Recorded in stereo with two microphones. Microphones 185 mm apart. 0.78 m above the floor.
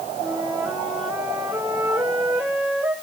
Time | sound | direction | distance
0.2 | a flute | centre (ahead or behind) | 5 m